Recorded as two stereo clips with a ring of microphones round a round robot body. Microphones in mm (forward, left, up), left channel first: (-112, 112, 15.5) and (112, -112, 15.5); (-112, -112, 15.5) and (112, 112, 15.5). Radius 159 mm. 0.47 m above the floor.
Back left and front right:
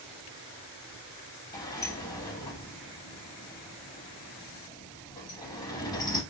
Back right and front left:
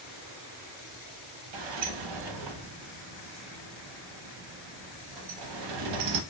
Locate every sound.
1.5 s a sliding door: 55° left, 0.6 m